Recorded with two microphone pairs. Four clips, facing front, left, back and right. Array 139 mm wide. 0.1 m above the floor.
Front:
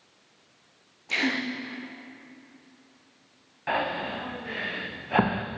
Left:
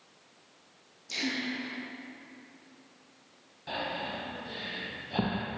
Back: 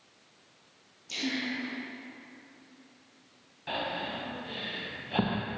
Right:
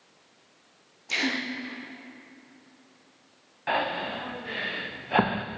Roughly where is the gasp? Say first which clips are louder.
Right 4 dB, front 5 dB; ahead right.